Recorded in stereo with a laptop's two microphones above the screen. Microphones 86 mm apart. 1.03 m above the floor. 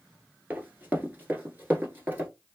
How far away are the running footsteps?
About 1.1 m.